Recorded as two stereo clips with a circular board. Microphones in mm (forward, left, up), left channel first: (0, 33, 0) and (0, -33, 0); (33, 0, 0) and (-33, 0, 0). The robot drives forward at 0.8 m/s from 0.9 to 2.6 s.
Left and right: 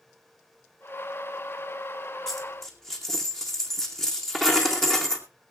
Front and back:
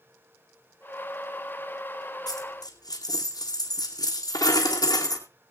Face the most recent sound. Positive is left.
turn(degrees=5)